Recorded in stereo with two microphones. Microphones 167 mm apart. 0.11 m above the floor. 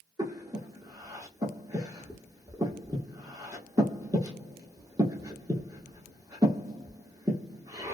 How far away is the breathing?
About 0.8 m.